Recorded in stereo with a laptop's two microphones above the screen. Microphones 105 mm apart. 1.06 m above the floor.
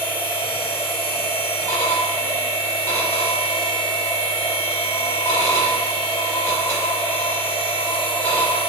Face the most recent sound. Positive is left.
turn(degrees=25)  # may be behind; listen again after turning